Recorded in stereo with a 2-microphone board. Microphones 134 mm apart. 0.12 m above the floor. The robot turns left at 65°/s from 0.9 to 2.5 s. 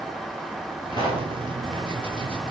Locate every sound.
0.9 s a pop: 30° left (ahead or behind), 10 m; by 1.3 s 55° left (ahead or behind), 10 m